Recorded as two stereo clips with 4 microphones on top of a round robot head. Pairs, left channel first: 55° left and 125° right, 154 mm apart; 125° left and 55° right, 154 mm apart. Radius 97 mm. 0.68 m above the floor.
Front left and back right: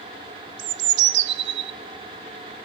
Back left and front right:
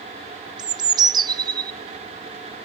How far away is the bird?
About 0.8 m.